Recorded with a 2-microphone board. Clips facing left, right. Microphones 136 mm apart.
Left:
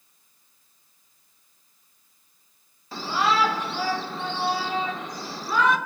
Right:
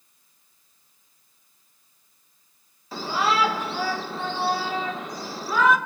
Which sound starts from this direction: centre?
A shout, at 2.9 s.